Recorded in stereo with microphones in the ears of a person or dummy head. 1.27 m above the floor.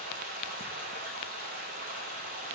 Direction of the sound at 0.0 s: 50° right (ahead or behind).